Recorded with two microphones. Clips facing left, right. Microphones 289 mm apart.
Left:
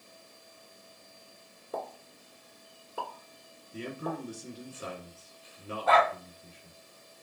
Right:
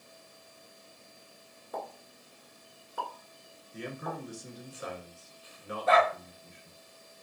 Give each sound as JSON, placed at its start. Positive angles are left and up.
{"t": 1.7, "sound": "a pop", "side_deg": 35, "distance_m": 1.1}
{"t": 3.7, "sound": "a man speaking", "side_deg": 35, "distance_m": 1.2}
{"t": 5.9, "sound": "a dog barking", "side_deg": 75, "distance_m": 1.4}